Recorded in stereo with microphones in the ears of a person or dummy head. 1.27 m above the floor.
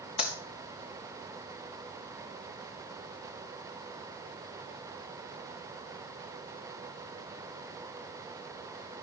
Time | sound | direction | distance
0.2 | a clap | 35° left (ahead or behind) | 1.7 m